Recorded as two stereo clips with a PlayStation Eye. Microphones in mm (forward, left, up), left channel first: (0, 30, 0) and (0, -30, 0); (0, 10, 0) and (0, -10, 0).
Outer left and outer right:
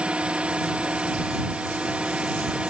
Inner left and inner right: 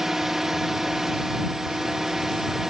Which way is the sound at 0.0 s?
20° right (ahead or behind).